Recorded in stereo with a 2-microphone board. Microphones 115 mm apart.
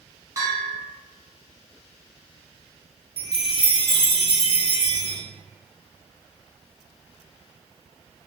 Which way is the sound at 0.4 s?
25° right (ahead or behind).